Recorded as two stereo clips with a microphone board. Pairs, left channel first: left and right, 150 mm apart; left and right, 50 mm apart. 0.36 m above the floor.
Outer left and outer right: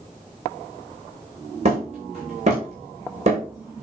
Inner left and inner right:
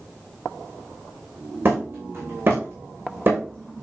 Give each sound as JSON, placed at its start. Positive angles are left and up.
{"t": 1.6, "sound": "hammering", "side_deg": -45, "distance_m": 6.5}